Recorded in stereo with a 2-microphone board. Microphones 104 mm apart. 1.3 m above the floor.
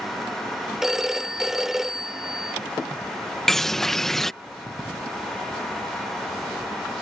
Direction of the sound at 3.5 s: 5° left (ahead or behind).